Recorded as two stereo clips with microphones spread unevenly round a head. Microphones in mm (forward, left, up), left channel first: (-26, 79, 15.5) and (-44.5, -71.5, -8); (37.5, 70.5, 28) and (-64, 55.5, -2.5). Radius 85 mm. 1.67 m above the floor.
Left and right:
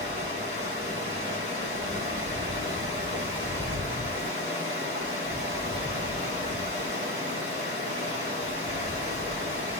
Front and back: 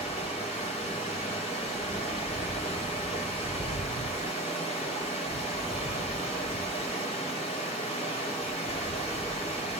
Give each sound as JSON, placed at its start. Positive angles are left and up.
{"t": 0.0, "sound": "running water", "azimuth_deg": -35, "distance_m": 2.0}